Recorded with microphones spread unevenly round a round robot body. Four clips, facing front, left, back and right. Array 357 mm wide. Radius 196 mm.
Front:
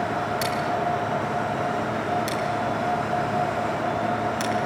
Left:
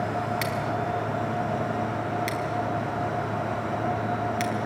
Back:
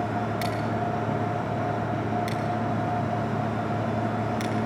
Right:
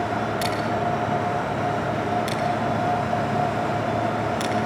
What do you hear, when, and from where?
0.4 s scissors: 85° left, 5 m